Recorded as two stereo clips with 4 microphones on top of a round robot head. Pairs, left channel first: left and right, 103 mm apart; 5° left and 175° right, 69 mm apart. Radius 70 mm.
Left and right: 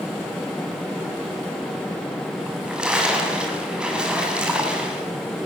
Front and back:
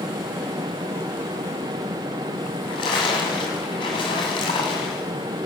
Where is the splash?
10° right, 7 m.